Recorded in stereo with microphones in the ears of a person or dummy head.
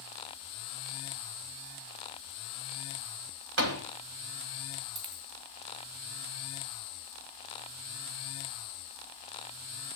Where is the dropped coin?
25° right (ahead or behind), 2.5 m.